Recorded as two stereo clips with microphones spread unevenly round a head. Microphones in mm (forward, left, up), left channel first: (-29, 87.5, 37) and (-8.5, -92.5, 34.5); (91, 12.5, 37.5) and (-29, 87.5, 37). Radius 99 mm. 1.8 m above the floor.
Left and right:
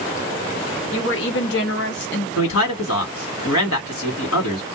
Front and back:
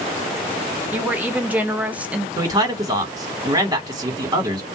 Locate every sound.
0.9 s a woman speaking: 70° left, 1.5 m; by 2.3 s 65° left, 0.8 m
2.4 s a man speaking: 85° left, 1.8 m